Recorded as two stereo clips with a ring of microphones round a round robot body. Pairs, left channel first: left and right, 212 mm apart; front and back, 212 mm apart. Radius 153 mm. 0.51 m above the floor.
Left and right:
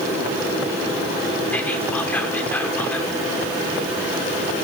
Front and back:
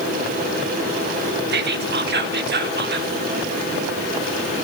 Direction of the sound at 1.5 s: 170° left.